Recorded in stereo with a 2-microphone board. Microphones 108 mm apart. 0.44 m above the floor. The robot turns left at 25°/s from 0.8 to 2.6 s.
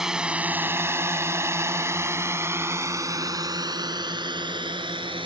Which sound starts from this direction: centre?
A drone, at 0.0 s.